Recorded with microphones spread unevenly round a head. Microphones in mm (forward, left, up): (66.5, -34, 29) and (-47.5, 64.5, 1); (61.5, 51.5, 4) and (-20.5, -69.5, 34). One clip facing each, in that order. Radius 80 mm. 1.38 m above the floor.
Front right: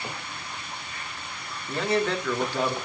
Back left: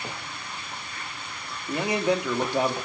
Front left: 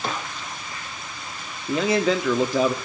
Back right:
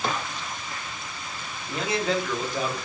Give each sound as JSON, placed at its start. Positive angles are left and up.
{"t": 1.7, "sound": "a man speaking", "azimuth_deg": 65, "distance_m": 2.5}